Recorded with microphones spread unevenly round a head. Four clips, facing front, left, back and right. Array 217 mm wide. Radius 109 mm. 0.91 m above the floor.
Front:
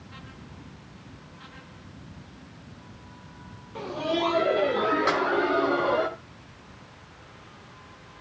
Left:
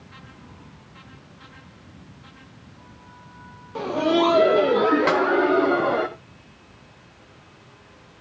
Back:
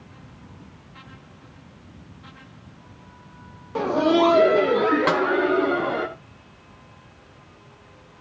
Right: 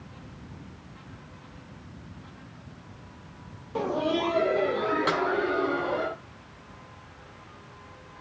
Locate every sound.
3.8 s laughter: 160° right, 0.6 m; by 6.1 s 115° left, 2.5 m
5.1 s a snare drum: 160° left, 1.3 m